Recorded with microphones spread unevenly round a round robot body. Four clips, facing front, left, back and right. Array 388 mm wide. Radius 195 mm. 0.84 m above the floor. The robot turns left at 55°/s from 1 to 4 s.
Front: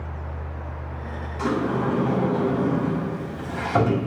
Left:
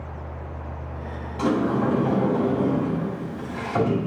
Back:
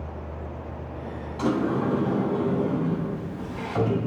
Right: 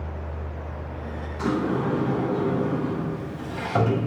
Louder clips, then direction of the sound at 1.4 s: Left 3 dB, even; 110° left.